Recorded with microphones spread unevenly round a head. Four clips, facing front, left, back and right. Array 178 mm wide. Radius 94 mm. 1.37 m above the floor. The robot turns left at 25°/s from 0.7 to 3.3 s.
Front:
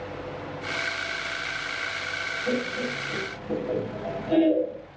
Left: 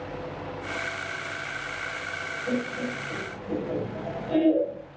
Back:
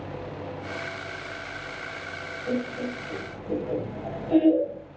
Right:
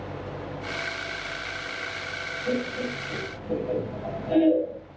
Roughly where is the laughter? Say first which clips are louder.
Right 1 dB, even; ahead right.